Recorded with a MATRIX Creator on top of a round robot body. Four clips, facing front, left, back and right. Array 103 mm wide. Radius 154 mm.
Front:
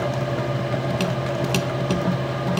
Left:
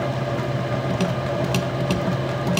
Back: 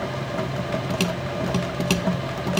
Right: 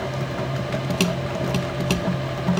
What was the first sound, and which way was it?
Only background noise.